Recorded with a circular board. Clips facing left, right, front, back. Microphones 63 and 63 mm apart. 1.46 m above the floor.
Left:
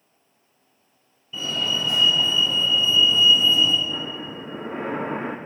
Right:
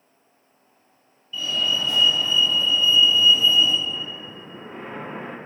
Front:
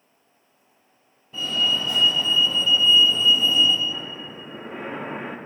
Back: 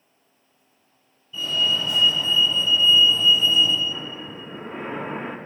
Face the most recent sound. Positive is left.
turn(degrees=85)